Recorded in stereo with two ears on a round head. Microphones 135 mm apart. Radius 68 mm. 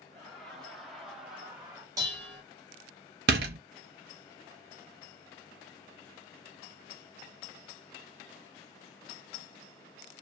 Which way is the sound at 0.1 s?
5° left (ahead or behind).